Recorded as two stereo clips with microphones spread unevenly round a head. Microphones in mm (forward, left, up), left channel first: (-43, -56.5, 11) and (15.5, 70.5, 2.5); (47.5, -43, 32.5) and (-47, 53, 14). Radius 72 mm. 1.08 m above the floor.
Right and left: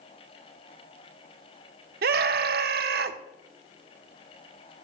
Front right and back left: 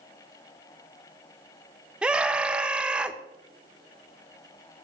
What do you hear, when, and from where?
2.0 s a scream: 55° left, 1.0 m